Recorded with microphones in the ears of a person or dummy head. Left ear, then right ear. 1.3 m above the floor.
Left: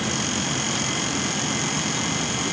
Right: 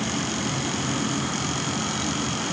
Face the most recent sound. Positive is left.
No sound to turn to.